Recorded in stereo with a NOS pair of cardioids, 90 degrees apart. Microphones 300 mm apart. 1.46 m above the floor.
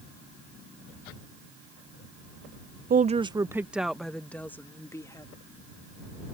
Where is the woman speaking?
30° right; by 5.3 s 10° left.